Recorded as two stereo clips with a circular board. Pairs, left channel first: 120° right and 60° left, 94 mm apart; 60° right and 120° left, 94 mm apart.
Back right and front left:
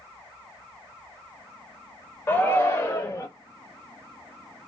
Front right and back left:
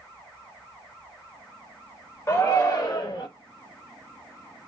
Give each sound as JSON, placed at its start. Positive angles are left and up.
{"t": 2.3, "sound": "a shout", "azimuth_deg": -80, "distance_m": 0.9}